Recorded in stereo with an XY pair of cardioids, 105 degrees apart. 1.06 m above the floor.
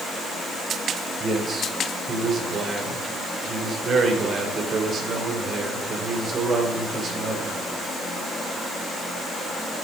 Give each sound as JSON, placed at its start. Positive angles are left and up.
{"t": 1.2, "sound": "a man speaking", "azimuth_deg": -50, "distance_m": 4.0}